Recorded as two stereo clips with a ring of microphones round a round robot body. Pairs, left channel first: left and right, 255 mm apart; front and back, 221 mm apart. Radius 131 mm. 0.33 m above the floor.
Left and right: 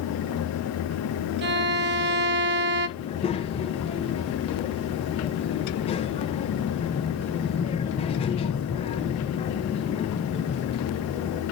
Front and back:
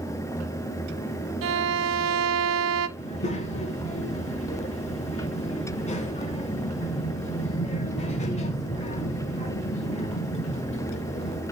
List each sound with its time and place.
1.4 s a violin: 140° right, 0.5 m
3.0 s a child speaking: 40° left, 1.0 m